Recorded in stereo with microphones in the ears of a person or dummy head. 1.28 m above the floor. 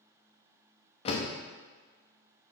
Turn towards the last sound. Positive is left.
turn(degrees=35)  # may be behind; listen again after turning